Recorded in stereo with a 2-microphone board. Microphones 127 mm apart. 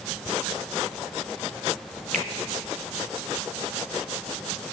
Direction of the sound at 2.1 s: 75° right (ahead or behind).